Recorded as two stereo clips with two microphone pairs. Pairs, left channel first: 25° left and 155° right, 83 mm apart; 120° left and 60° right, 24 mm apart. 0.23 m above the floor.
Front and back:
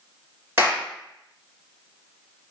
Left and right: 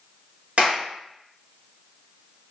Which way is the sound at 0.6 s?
90° right.